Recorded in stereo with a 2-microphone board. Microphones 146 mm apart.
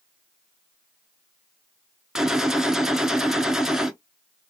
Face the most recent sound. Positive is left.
turn(degrees=-5)  # may be behind; listen again after turning